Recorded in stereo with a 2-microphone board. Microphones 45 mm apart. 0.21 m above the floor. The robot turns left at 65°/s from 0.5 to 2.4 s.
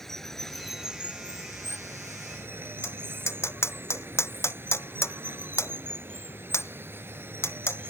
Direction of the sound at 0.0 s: 10° left.